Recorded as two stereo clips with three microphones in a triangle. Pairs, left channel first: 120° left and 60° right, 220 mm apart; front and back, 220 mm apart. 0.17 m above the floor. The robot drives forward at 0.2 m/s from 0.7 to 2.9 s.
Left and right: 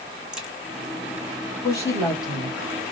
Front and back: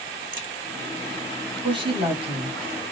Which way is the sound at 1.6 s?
170° left.